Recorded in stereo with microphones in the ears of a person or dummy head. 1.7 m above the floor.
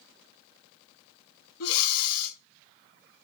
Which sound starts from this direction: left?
Breathing, at 1.6 s.